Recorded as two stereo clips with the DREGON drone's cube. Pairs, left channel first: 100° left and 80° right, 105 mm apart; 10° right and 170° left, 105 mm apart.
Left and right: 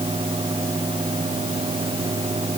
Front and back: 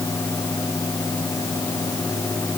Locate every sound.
Only background noise.